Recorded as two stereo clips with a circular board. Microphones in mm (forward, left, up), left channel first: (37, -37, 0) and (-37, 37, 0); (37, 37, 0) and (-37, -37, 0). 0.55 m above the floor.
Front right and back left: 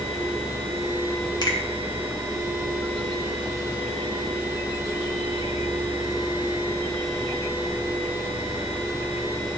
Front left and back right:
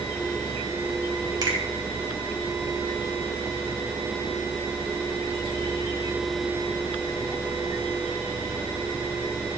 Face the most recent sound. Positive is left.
turn(degrees=-90)